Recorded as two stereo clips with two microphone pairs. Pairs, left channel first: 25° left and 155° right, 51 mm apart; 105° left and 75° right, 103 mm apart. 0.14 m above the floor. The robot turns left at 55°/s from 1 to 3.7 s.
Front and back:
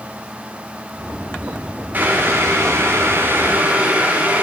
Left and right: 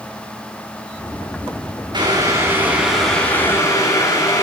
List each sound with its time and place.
1.9 s boiling: 105° right, 2.5 m; by 4.4 s 160° left, 2.5 m